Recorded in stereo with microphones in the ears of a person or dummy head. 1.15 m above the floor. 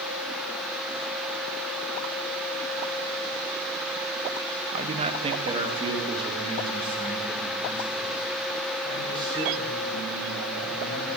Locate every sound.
4.7 s a man speaking: 40° right (ahead or behind), 0.9 m; by 11.2 s 30° right (ahead or behind), 8 m